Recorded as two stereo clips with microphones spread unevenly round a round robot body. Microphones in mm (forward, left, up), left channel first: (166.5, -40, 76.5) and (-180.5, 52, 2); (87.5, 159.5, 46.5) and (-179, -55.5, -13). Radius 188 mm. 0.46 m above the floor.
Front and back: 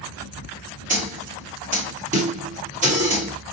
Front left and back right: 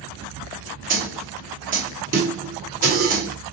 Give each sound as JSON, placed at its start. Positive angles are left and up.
{"t": 0.9, "sound": "a snare drum", "azimuth_deg": -165, "distance_m": 1.5}